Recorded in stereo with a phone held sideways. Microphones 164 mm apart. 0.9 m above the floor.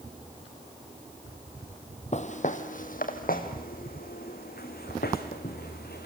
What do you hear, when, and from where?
2.1 s footsteps: 45° left (ahead or behind), 1.3 m; by 6.1 s 75° left (ahead or behind), 3.5 m